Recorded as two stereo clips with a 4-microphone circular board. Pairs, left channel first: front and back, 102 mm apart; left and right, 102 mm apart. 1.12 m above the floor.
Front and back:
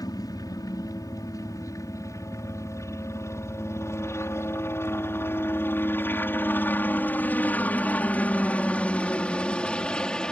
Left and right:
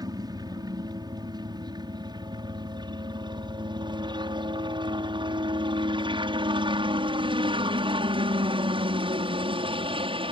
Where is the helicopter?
45° right; by 10.3 s 80° right.